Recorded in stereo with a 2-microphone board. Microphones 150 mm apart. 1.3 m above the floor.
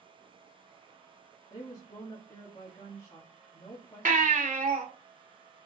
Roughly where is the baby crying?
Right.